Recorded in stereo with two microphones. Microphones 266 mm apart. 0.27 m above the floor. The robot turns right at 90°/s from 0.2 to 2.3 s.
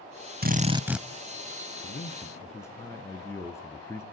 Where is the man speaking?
125° left, 3.5 m; by 4.0 s 170° left, 3.5 m.